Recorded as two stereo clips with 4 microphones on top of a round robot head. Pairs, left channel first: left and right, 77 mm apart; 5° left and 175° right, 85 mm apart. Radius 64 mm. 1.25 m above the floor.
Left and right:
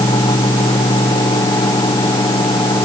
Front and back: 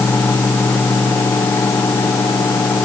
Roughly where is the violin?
I don't hear a violin.